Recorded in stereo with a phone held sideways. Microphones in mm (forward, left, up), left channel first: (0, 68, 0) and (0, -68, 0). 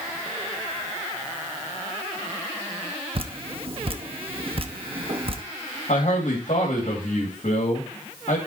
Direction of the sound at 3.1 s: 45° right (ahead or behind).